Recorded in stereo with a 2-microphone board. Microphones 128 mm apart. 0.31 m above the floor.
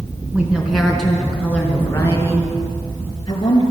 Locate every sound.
0.3 s a woman speaking: 10° right (ahead or behind), 3 m; by 3.6 s 35° left (ahead or behind), 5 m